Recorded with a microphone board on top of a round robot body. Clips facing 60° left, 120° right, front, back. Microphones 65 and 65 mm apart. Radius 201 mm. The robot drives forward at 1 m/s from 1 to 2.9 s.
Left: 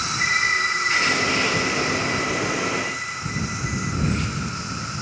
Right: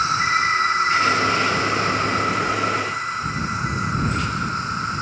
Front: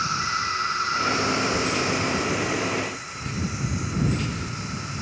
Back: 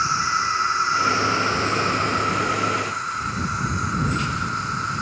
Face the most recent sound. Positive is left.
turn(degrees=-160)